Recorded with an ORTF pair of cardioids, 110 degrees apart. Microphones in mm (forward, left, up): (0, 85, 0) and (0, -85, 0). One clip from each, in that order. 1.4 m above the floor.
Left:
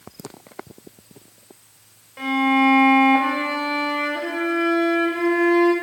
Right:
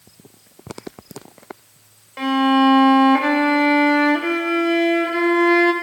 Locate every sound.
2.2 s a violin: 35° right, 0.9 m